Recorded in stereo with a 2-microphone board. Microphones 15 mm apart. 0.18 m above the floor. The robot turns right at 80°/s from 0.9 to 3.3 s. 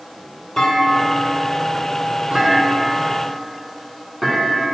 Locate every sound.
0.6 s a clunk: 35° left (ahead or behind), 1.9 m; by 4.7 s 30° right (ahead or behind), 1.9 m